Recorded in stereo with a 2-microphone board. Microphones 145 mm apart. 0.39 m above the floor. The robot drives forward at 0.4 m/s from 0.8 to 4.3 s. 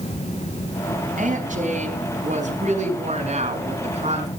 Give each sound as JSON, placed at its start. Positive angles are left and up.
{"t": 1.2, "sound": "a woman speaking", "side_deg": -65, "distance_m": 4.0}